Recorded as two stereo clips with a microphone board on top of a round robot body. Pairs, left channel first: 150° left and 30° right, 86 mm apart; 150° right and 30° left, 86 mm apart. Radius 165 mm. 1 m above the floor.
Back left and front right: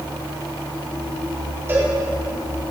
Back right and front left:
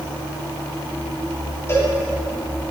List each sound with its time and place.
1.7 s a cowbell: 90° right, 4 m